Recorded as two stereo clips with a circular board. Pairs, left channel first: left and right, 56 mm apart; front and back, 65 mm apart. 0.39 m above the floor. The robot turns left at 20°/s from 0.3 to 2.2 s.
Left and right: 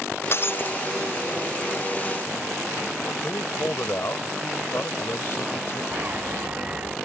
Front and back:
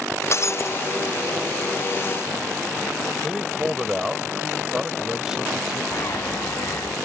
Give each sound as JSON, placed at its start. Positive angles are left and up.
{"t": 0.3, "sound": "breaking glass", "azimuth_deg": 45}
{"t": 3.2, "sound": "a man speaking", "azimuth_deg": 100}
{"t": 5.9, "sound": "a bird", "azimuth_deg": -35}